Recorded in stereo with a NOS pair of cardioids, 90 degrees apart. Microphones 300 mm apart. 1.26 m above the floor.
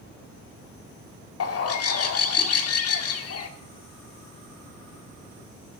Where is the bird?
55° left, 1.9 m.